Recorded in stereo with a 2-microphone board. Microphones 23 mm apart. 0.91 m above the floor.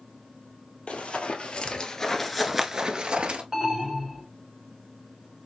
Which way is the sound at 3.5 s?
15° right (ahead or behind).